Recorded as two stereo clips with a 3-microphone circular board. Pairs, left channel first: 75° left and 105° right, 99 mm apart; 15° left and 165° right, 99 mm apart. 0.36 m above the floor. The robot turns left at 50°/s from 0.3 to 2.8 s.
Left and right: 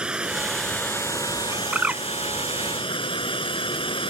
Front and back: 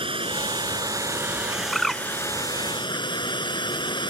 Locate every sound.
0.0 s running water: 175° left; by 4.1 s 50° left
1.7 s a bird: 65° right; by 2.0 s 80° right